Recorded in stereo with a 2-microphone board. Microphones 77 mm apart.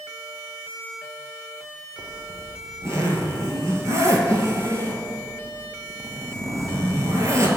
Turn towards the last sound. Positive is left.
turn(degrees=-40)  # may be behind; listen again after turning